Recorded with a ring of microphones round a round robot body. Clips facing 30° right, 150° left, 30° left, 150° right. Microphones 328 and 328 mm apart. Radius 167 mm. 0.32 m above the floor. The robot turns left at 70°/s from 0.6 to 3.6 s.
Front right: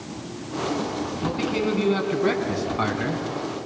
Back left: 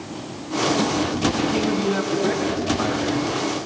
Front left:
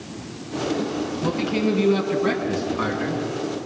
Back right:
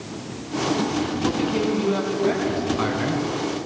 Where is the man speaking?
45° left, 4 m; by 3.2 s 95° right, 4 m.